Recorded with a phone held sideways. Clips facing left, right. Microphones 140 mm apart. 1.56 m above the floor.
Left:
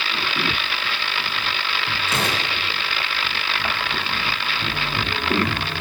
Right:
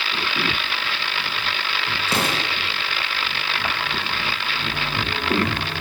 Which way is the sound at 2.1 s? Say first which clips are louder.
Right 2 dB; 35° right (ahead or behind).